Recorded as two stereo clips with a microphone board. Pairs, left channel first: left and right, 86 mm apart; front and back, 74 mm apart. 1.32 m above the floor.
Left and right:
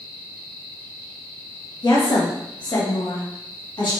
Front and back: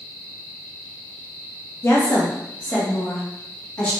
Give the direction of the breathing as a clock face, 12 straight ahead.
I don't hear breathing.